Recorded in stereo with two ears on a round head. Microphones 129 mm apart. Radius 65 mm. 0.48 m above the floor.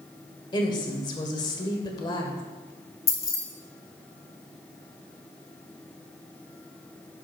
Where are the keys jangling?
25° left (ahead or behind), 1.4 m.